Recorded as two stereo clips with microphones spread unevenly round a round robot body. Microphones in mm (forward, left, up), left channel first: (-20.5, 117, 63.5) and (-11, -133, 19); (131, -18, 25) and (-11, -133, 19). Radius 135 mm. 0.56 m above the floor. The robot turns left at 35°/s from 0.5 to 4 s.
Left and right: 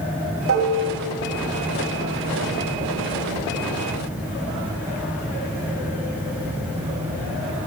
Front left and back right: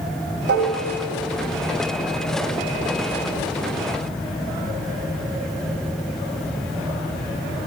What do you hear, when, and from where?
0.5 s dishes clattering: 125° right, 2.5 m; by 0.8 s 135° right, 2.5 m